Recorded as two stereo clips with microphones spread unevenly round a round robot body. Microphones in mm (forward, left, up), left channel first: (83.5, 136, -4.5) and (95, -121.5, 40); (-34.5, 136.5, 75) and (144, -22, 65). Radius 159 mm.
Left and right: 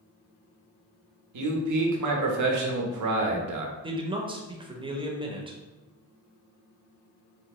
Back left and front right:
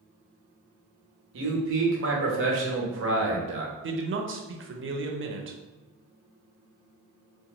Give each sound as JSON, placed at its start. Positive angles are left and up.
{"t": 1.3, "sound": "a man speaking", "azimuth_deg": -75, "distance_m": 0.8}
{"t": 3.8, "sound": "a man speaking", "azimuth_deg": -10, "distance_m": 0.6}